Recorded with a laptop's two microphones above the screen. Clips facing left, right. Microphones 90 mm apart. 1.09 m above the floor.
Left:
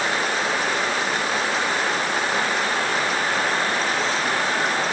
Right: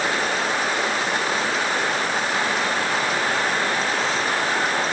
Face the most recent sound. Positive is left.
No sound to turn to.